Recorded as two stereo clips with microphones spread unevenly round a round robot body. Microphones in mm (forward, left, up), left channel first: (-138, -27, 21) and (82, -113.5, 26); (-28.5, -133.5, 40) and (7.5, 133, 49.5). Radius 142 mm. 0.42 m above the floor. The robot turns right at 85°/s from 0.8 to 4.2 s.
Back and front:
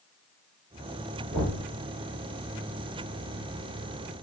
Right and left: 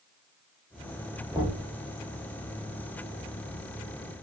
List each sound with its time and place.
1.3 s knocking: 5° right, 1.0 m; by 1.6 s 25° left, 1.0 m